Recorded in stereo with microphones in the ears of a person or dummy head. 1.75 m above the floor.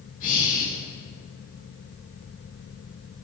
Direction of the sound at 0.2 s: 45° left (ahead or behind).